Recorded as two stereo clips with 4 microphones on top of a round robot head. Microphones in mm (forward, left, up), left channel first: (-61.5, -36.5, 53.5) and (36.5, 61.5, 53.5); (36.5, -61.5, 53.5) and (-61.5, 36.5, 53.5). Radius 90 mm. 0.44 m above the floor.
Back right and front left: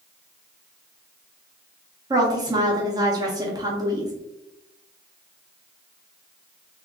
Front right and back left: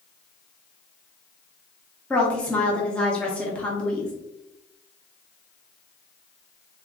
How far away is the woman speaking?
About 0.8 m.